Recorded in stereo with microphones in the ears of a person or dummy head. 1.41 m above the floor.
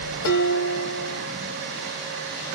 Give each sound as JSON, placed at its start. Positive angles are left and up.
{"t": 0.2, "sound": "dishes clattering", "side_deg": 65, "distance_m": 1.3}